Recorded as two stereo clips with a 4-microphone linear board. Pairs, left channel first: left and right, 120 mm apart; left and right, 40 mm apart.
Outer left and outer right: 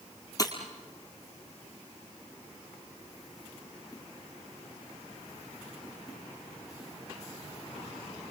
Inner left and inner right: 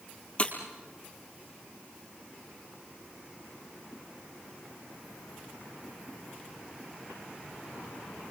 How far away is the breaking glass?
About 3 m.